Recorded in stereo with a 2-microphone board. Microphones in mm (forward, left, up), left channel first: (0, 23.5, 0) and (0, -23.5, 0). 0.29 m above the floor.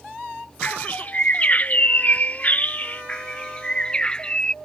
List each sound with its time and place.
0.6 s a bird: 35° left (ahead or behind)
3.1 s a bird: 20° left (ahead or behind)